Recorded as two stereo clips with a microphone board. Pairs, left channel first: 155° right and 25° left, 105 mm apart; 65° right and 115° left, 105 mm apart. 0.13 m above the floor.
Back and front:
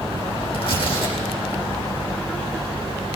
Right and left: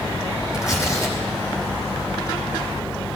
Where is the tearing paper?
125° right, 4 m.